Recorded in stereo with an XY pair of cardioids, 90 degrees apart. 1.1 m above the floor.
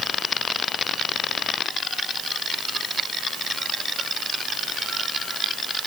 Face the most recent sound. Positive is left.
No sound to turn to.